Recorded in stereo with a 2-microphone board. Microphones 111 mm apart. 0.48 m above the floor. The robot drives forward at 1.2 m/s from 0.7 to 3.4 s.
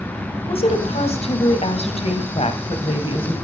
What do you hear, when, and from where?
0.5 s a woman speaking: 60° left (ahead or behind), 3.5 m; by 3.4 s 50° left (ahead or behind), 3.5 m